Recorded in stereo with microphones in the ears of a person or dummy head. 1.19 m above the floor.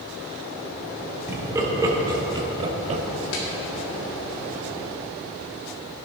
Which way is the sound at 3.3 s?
85° left.